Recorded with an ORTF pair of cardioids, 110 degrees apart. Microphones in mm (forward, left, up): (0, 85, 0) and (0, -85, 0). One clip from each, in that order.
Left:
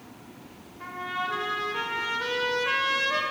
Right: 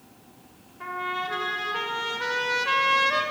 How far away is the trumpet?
About 5 m.